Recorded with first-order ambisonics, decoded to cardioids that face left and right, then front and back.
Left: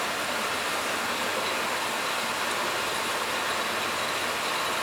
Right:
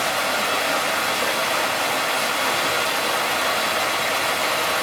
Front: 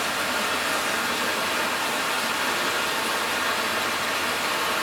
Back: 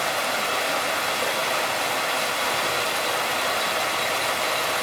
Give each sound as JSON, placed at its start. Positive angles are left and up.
{"t": 0.0, "sound": "running water", "azimuth_deg": -120, "distance_m": 4.0}